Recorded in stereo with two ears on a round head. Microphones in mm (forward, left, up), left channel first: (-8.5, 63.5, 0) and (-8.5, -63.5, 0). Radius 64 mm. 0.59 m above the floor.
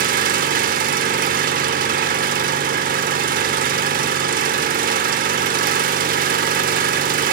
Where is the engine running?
70° right (ahead or behind), 1.0 m.